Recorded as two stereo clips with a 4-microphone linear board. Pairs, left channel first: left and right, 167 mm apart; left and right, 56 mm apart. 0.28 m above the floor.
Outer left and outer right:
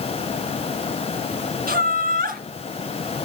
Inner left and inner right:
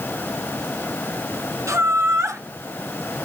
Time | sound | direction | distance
1.7 | laughter | 65° right (ahead or behind) | 3.5 m